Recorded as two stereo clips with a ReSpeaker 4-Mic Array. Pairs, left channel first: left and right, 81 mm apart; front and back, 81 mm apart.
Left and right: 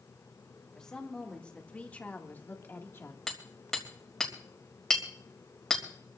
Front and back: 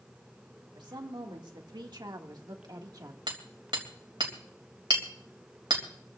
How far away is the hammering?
About 3 m.